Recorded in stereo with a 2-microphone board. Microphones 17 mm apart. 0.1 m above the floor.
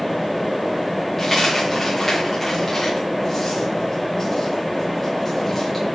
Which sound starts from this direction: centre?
A dropped coin, at 1.2 s.